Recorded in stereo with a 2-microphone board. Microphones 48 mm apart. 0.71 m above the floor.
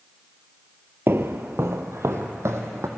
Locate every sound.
1.1 s footsteps: 50° right (ahead or behind), 1.2 m; by 2.9 s 70° right (ahead or behind), 2.5 m